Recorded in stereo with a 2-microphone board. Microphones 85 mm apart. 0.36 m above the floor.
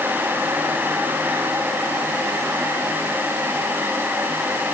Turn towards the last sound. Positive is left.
No sound to turn to.